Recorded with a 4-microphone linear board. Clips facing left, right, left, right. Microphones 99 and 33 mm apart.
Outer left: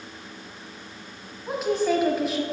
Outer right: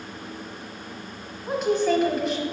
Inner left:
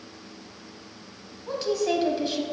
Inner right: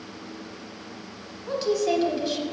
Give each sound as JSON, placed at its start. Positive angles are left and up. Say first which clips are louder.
{"t": 1.5, "sound": "a woman speaking", "louder": "outer right 1 dB, inner right 2 dB", "side_deg": 5, "distance_m": 1.1}